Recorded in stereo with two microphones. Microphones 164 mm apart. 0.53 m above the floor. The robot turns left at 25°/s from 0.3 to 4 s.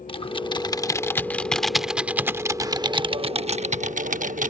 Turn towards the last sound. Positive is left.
turn(degrees=-55)